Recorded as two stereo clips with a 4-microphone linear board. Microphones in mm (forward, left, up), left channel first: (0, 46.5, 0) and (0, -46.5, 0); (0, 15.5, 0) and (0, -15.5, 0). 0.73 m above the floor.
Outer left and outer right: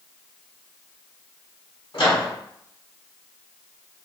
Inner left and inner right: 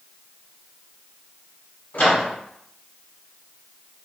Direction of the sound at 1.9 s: 60° left (ahead or behind).